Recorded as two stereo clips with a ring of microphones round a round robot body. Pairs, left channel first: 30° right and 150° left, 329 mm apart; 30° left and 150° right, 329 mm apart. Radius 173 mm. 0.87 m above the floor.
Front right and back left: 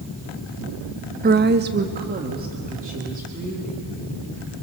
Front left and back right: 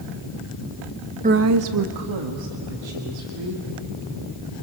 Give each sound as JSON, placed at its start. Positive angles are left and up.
{"t": 1.2, "sound": "a woman speaking", "azimuth_deg": 170, "distance_m": 0.6}